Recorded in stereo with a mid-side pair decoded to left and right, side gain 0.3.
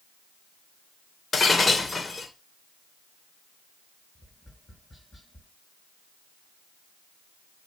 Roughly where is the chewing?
No chewing in this recording.